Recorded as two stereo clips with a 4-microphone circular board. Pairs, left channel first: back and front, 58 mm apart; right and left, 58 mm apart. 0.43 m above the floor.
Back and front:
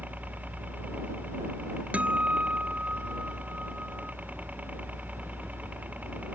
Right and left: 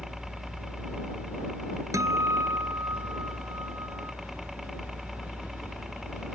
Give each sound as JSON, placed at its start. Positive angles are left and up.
{"t": 0.0, "sound": "a helicopter", "azimuth_deg": 10}
{"t": 1.9, "sound": "a guitar", "azimuth_deg": 65}